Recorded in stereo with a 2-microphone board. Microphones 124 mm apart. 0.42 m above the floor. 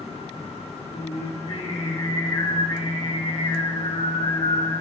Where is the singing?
85° left, 7.5 m.